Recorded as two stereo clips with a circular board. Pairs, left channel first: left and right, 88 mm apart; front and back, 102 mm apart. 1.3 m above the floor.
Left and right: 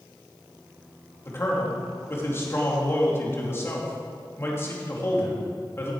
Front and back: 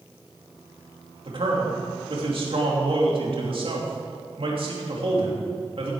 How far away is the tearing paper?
I don't hear tearing paper.